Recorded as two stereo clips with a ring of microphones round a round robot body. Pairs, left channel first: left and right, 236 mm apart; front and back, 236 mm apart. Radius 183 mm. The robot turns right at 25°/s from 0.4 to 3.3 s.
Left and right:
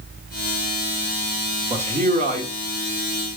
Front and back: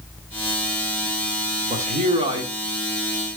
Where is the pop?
I don't hear a pop.